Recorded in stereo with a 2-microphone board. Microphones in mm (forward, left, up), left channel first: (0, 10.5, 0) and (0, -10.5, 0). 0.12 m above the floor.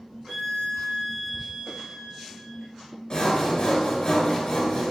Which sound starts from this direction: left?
Sawing, at 3.1 s.